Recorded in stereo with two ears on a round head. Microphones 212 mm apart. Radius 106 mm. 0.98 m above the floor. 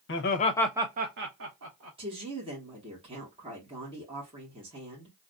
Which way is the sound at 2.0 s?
25° right (ahead or behind).